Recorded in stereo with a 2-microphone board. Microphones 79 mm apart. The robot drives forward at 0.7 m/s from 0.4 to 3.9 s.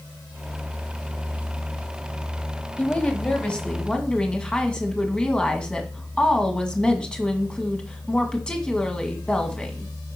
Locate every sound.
2.8 s a woman speaking: 20° left (ahead or behind), 1.1 m; by 9.9 s 10° left (ahead or behind), 1.7 m